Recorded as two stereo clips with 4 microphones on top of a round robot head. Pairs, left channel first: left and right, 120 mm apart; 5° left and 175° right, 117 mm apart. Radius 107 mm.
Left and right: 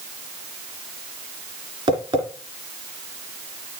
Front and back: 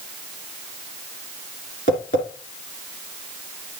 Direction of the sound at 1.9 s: 40° right.